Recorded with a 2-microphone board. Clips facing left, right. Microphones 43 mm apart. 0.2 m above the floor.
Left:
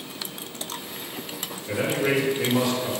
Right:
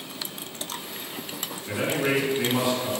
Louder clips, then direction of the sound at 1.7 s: Left 1 dB; 20° right (ahead or behind).